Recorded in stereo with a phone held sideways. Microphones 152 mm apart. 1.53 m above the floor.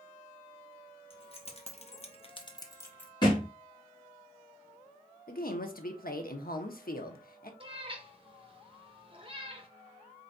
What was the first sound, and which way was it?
Keys jangling, 35° left (ahead or behind).